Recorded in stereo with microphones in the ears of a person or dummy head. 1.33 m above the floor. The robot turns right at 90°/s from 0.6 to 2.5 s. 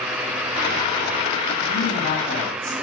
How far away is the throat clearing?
No throat clearing in this recording.